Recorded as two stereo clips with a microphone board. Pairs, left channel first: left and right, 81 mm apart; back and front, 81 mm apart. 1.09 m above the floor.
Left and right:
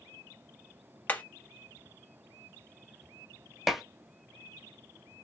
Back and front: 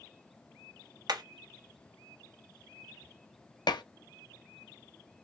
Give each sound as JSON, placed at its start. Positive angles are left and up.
{"t": 1.1, "sound": "hammering", "azimuth_deg": 25, "distance_m": 0.9}
{"t": 3.7, "sound": "dishes clattering", "azimuth_deg": -175, "distance_m": 0.6}